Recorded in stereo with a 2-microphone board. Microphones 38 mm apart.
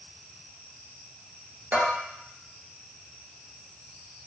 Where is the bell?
50° right (ahead or behind), 0.9 m.